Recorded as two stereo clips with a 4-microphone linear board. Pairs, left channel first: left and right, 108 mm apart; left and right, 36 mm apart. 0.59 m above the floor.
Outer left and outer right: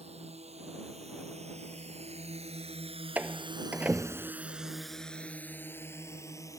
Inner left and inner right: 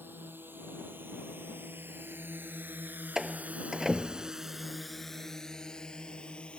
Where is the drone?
80° right; by 6.6 s 30° left (ahead or behind).